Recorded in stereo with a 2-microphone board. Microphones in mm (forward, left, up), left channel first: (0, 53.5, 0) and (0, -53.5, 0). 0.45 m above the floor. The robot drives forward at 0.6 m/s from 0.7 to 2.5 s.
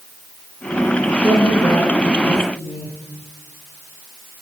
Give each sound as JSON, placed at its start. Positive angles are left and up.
{"t": 1.2, "sound": "a woman speaking", "side_deg": 70, "distance_m": 8.5}